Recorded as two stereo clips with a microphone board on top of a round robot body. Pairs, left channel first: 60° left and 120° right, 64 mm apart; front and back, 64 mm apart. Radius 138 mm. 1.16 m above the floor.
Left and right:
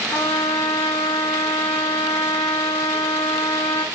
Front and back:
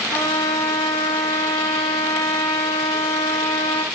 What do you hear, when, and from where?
0.1 s a trumpet: 35° left, 0.5 m